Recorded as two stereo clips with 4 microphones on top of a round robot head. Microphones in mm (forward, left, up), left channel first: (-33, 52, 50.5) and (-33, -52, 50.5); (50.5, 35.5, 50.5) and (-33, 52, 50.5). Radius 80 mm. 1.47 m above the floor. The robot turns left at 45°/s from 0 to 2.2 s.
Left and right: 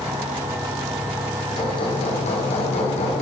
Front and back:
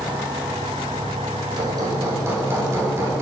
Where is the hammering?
135° left, 4.5 m; by 3.2 s 110° left, 4.5 m.